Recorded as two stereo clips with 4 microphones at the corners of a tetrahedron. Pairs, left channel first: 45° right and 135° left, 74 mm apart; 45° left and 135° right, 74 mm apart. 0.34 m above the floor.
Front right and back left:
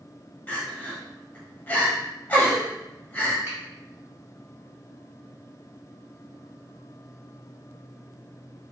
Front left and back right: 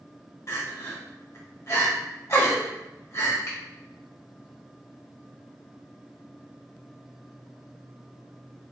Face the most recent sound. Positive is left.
turn(degrees=75)